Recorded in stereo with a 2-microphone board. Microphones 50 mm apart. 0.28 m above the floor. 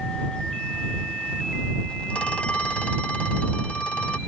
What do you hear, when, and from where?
2.1 s a phone ringing: 25° left (ahead or behind)